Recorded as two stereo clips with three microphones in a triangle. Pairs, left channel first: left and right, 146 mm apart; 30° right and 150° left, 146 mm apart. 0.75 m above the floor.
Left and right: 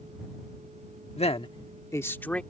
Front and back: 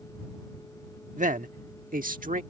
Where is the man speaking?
130° left; by 2.4 s 170° left.